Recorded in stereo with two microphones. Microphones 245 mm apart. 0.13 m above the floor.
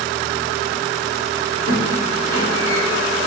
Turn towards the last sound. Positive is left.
turn(degrees=75)  # may be behind; listen again after turning